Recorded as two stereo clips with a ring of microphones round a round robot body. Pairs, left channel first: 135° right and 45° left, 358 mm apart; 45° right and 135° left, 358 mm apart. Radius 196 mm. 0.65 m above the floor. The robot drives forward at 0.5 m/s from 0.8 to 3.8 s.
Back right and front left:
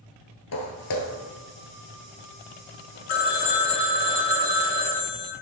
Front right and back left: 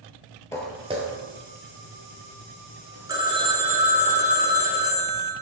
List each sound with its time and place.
0.5 s footsteps: 120° right, 0.7 m; by 4.1 s 170° left, 4 m
3.1 s a phone ringing: 145° right, 1.1 m; by 5.3 s 155° right, 1.4 m